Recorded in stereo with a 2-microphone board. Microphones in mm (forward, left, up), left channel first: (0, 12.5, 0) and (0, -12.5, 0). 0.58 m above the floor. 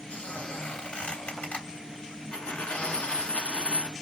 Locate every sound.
0.1 s a squeak: 75° left (ahead or behind), 1.2 m
2.3 s a dropped coin: 65° left (ahead or behind), 0.7 m